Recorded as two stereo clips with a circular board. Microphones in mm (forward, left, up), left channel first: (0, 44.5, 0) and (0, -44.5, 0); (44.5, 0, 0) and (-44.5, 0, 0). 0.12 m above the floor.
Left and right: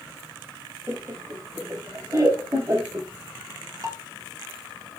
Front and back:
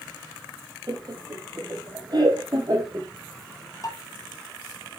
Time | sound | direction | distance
0.9 | laughter | 145° right | 3 m
3.8 | dishes clattering | 40° right | 2 m